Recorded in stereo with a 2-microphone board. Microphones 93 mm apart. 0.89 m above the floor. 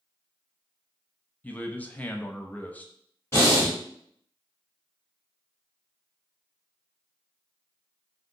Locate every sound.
1.4 s a man speaking: 15° left (ahead or behind), 0.5 m
3.3 s breathing: 25° left (ahead or behind), 1.8 m